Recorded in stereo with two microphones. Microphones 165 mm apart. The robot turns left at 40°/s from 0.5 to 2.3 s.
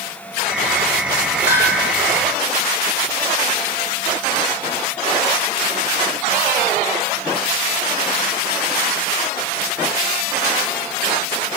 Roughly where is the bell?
Left.